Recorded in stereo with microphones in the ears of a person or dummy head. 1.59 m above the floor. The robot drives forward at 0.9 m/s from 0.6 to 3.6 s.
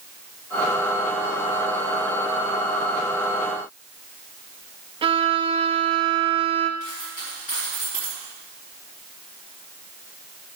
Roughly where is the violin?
Right.